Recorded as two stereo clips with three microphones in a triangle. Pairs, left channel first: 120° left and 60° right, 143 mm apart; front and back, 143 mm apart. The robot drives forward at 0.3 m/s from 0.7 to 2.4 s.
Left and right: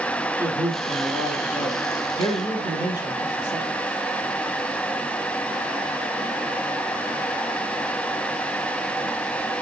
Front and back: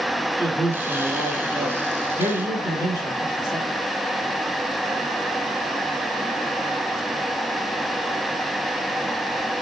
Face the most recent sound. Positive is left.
turn(degrees=-125)